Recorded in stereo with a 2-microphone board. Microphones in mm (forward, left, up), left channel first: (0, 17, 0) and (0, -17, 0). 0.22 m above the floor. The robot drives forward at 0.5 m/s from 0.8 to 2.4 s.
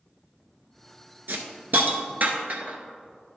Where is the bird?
No bird in this recording.